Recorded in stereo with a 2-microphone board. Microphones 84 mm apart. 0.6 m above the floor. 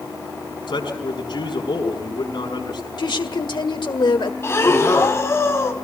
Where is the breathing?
35° left (ahead or behind), 1.8 m.